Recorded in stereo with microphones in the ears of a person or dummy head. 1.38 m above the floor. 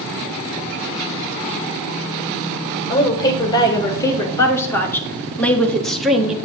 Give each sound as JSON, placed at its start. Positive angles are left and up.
{"t": 2.9, "sound": "a woman speaking", "side_deg": 25, "distance_m": 3.0}